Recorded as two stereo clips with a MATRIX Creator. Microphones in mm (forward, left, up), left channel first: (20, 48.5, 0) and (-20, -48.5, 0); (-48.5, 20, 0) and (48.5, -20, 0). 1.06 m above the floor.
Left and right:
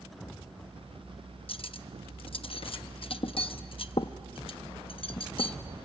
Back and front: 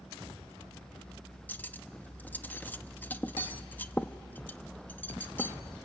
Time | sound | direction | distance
1.5 | cutlery clinking | 85° left | 0.6 m